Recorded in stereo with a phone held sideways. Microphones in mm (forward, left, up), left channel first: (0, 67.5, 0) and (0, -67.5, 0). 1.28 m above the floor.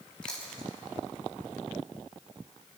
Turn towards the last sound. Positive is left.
turn(degrees=5)  # may be behind; listen again after turning